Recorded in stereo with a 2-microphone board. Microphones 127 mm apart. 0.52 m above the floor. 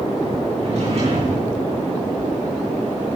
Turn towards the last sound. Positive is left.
turn(degrees=-60)  # may be behind; listen again after turning